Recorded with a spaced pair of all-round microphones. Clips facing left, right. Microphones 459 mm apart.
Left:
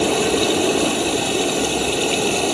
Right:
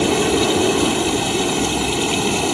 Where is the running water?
20° right (ahead or behind).